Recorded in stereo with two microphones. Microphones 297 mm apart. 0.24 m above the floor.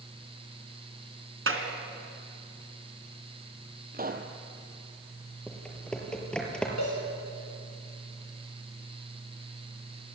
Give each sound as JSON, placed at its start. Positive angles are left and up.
{"t": 1.5, "sound": "a clap", "side_deg": -50, "distance_m": 2.5}
{"t": 3.9, "sound": "a pop", "side_deg": -30, "distance_m": 1.9}
{"t": 5.5, "sound": "typing on a keyboard", "side_deg": 5, "distance_m": 4.0}
{"t": 6.8, "sound": "a cowbell", "side_deg": 70, "distance_m": 7.0}